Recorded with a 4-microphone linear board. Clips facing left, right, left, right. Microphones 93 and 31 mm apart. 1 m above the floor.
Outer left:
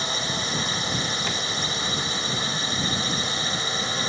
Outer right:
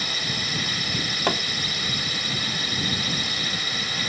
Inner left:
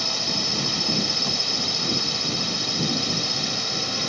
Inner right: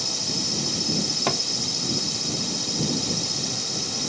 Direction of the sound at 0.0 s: 30° left (ahead or behind).